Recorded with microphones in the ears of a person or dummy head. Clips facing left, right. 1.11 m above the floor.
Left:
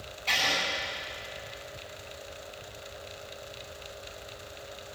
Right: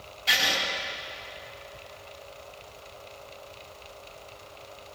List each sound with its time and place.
0.3 s writing: 15° right (ahead or behind), 6 m